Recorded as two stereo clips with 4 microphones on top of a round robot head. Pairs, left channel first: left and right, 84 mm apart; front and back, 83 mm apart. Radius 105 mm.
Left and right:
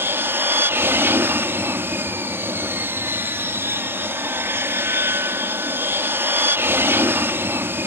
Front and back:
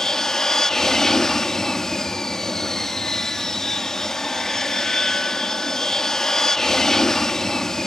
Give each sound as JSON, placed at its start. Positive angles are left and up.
{"t": 0.0, "sound": "an aircraft", "azimuth_deg": -75}